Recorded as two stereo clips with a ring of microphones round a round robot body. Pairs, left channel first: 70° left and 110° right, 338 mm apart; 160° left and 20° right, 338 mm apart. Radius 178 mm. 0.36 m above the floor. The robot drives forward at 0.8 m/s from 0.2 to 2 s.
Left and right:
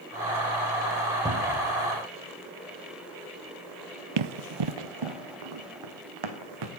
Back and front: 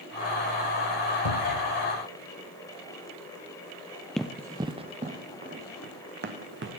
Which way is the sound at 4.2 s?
115° right.